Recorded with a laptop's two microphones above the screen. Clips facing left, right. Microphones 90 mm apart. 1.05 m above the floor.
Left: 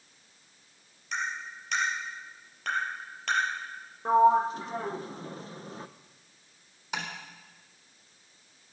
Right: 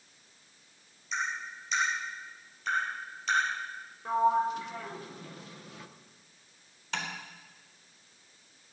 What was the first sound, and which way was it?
Tapping, 65° left (ahead or behind).